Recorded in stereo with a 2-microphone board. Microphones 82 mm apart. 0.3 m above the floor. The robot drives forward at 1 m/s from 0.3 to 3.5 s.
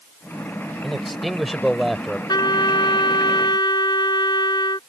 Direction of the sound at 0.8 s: Centre (ahead or behind).